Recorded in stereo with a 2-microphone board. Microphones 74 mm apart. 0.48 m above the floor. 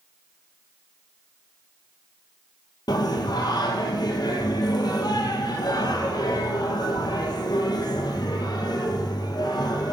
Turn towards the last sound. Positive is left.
turn(degrees=65)  # may be behind; listen again after turning